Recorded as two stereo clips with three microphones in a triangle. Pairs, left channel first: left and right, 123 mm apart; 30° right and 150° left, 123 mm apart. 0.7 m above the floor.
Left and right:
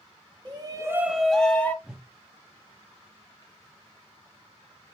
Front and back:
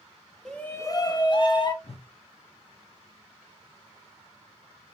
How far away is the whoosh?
About 0.6 m.